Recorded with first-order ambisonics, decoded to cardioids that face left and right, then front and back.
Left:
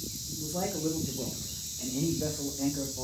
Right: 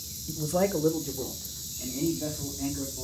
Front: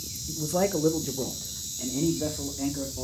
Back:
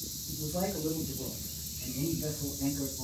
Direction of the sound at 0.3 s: 60° right.